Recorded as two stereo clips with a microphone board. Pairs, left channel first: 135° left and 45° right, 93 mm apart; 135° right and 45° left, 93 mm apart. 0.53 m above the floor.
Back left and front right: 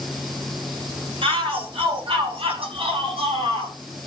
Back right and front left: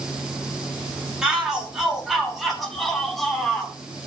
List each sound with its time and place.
1.2 s a shout: 35° right, 4.5 m; by 3.8 s 50° right, 3.5 m